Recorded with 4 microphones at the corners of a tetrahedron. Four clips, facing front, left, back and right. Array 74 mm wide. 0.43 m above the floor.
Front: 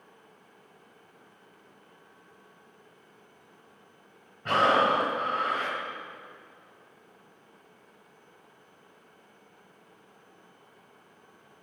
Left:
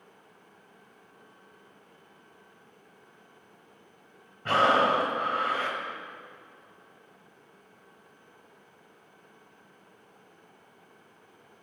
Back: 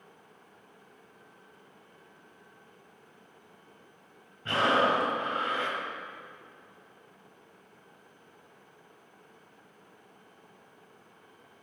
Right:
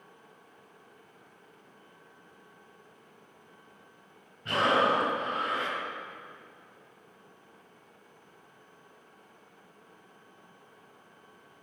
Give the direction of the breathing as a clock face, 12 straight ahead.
10 o'clock.